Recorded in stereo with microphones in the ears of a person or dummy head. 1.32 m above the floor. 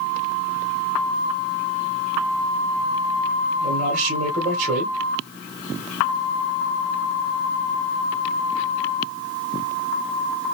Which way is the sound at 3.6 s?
45° right (ahead or behind).